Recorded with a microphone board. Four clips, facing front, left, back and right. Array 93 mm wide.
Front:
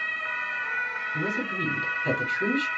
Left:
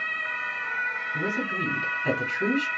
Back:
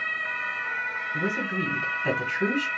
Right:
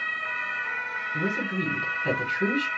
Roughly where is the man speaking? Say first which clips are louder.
Right 2 dB, back 2 dB; behind.